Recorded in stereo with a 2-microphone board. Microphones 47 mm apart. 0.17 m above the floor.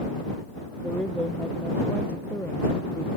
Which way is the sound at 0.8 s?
20° left (ahead or behind).